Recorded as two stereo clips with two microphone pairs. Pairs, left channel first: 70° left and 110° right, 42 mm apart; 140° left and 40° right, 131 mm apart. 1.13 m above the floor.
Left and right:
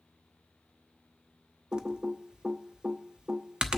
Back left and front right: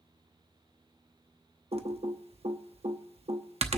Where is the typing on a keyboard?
50° right, 0.7 m.